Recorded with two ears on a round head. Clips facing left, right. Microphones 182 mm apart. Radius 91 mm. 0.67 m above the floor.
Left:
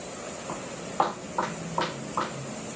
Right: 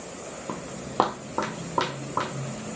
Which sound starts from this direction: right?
Footsteps, at 0.5 s.